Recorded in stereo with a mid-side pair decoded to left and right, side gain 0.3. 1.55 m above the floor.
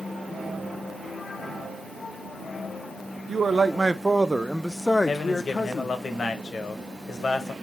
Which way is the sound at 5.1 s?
60° left.